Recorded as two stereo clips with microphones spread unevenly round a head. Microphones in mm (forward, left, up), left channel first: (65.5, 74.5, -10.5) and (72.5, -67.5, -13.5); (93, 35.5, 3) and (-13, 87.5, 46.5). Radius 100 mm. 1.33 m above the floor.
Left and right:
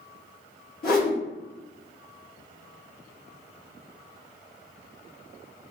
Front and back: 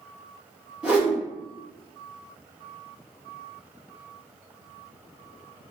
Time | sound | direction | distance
0.8 | a whoosh | 75° left | 1.5 m